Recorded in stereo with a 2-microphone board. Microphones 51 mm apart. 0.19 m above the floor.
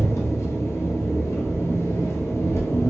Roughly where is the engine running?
Left.